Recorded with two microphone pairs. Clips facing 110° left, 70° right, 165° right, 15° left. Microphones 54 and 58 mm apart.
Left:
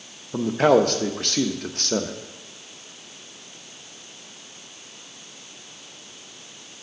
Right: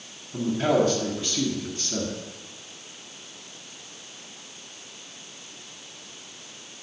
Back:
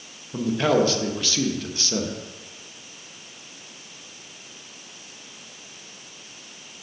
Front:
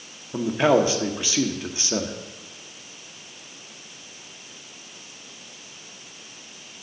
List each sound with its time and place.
0.3 s a man speaking: 85° left, 0.8 m